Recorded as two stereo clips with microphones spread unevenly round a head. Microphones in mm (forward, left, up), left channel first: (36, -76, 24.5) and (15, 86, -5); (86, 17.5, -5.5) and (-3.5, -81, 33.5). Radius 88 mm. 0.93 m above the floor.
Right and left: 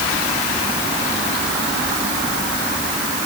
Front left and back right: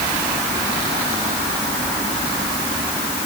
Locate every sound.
Only background noise.